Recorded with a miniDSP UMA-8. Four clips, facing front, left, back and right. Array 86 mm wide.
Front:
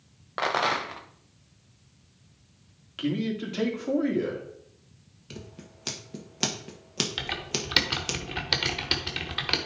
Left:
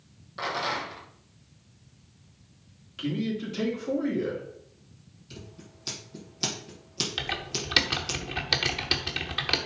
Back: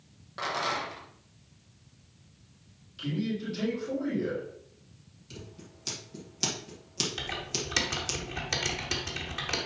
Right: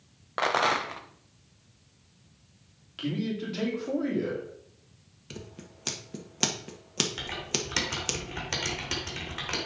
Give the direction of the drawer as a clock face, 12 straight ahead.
I don't hear a drawer.